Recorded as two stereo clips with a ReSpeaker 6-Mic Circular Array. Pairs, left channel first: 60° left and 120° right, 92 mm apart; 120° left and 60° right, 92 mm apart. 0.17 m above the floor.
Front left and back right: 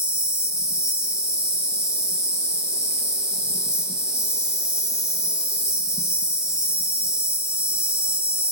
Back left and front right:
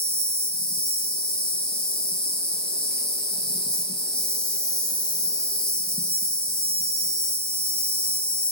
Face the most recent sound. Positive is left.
turn(degrees=0)